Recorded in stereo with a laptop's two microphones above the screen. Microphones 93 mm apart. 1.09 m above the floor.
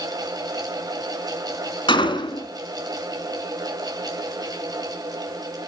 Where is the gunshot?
60° left (ahead or behind), 2 m.